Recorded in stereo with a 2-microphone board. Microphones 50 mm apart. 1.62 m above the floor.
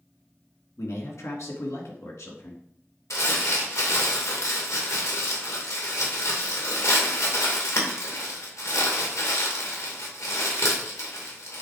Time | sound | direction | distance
0.8 | a man speaking | 75° left (ahead or behind) | 2.5 m
3.1 | crumpling | 85° left | 2.5 m